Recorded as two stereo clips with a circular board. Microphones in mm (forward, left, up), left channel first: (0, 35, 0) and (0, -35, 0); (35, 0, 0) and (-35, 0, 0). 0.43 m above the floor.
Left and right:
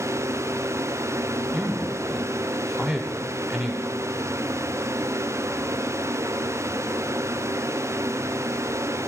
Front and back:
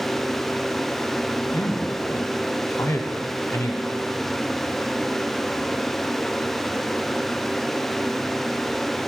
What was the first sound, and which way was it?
A man speaking, 10° right.